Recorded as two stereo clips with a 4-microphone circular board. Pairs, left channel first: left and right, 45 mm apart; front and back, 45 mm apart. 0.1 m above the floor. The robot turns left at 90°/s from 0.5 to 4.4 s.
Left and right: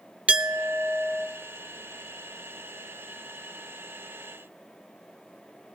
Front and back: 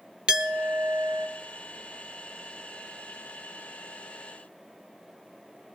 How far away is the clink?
About 0.9 m.